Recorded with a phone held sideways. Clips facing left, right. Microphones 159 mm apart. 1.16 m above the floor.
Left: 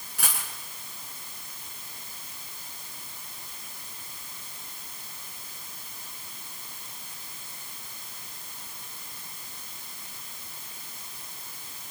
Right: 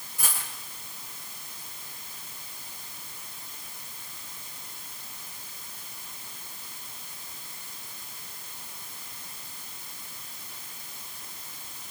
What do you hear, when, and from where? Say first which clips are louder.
0.2 s a dropped coin: left 1 dB; 75° left (ahead or behind), 4.5 m